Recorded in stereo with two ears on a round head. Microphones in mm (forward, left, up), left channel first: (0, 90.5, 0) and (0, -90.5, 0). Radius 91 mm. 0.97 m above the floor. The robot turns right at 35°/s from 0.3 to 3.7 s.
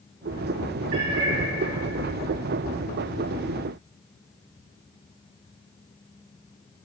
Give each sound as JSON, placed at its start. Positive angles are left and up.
{"t": 0.9, "sound": "a cat meowing", "side_deg": -50, "distance_m": 1.5}